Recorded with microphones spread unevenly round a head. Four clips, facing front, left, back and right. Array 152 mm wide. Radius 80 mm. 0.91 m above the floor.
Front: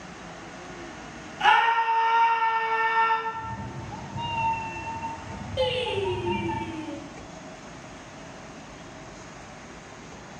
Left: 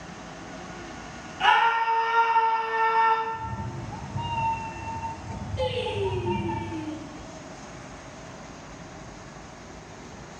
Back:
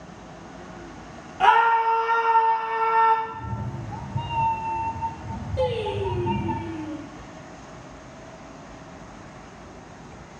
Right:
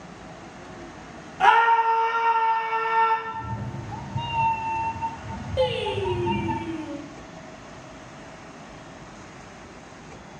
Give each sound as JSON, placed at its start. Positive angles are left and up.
{"t": 1.4, "sound": "a scream", "azimuth_deg": -150, "distance_m": 2.0}
{"t": 3.2, "sound": "a cat meowing", "azimuth_deg": -135, "distance_m": 0.7}
{"t": 5.6, "sound": "singing", "azimuth_deg": -80, "distance_m": 2.5}